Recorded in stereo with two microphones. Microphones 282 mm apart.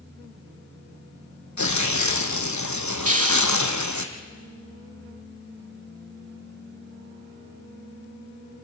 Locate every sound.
1.6 s tearing paper: 90° left, 2 m
3.0 s a hiss: 25° right (ahead or behind), 1.0 m